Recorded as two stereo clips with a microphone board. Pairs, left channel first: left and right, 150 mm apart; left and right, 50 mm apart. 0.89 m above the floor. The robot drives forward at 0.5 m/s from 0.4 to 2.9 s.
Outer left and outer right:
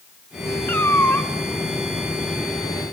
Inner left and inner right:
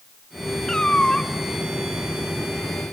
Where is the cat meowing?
15° left (ahead or behind), 1.3 m.